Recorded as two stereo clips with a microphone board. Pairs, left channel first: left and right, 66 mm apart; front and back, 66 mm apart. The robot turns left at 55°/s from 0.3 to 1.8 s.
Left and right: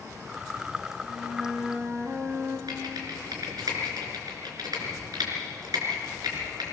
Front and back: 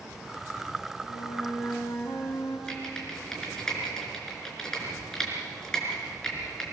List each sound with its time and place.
1.0 s a flute: 15° left, 4.5 m; by 2.6 s 30° right, 4.5 m
2.7 s typing on a keyboard: 80° right, 4.5 m